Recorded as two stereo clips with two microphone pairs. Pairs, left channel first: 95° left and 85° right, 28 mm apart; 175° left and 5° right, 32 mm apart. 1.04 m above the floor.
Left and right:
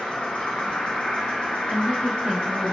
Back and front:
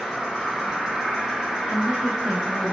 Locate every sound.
0.0 s an insect: 60° left, 1.1 m
1.7 s a woman speaking: 60° right, 1.2 m